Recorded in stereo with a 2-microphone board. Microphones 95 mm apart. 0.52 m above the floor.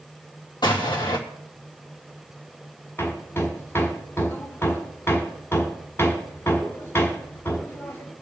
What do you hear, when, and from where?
0.6 s an explosion: 50° left (ahead or behind), 3 m
3.0 s hammering: 25° left (ahead or behind), 1.6 m